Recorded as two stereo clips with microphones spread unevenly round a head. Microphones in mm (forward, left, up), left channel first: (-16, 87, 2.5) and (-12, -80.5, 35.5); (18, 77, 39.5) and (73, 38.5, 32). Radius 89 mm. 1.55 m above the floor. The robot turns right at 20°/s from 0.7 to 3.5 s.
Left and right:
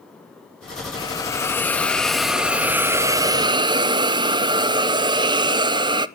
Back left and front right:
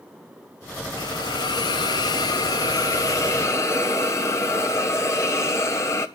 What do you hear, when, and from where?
1.0 s a hiss: 155° left, 0.7 m; by 6.1 s 155° right, 0.7 m